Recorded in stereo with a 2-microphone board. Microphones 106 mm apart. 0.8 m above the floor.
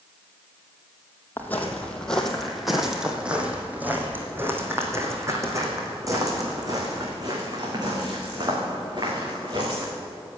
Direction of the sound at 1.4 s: 20° left (ahead or behind).